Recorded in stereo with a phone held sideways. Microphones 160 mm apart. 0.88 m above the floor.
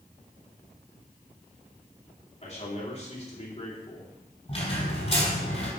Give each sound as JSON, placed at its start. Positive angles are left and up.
{"t": 2.4, "sound": "a man speaking", "side_deg": 45, "distance_m": 2.5}
{"t": 4.5, "sound": "a squeak", "side_deg": 40, "distance_m": 3.5}